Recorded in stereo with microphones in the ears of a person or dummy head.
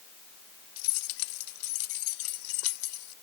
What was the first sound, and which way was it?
Keys jangling, 85° left.